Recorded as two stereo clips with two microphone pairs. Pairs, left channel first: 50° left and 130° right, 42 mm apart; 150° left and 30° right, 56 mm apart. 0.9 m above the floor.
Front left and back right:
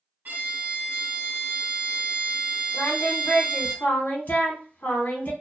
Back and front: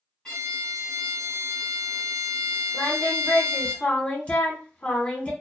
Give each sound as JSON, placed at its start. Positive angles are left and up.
{"t": 0.2, "sound": "a violin", "azimuth_deg": -135, "distance_m": 1.1}
{"t": 2.7, "sound": "singing", "azimuth_deg": 85, "distance_m": 0.9}